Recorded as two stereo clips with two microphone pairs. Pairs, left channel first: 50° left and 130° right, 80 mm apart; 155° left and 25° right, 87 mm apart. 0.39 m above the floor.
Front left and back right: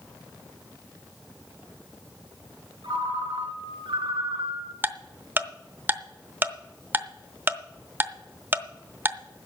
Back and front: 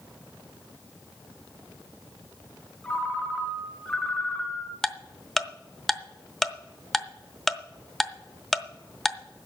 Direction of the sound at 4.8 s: 120° right.